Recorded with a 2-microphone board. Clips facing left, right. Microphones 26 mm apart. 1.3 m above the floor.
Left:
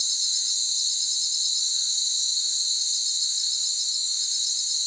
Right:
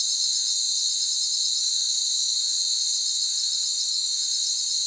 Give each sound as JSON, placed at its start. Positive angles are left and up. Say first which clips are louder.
{"t": 0.0, "sound": "an insect", "louder": "right 1 dB", "side_deg": -25, "distance_m": 2.5}